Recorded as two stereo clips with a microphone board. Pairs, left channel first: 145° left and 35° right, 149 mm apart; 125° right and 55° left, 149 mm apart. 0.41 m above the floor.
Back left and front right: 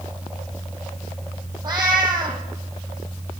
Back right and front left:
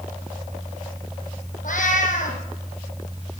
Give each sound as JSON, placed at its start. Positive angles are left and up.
{"t": 1.6, "sound": "a cat meowing", "azimuth_deg": -100, "distance_m": 2.5}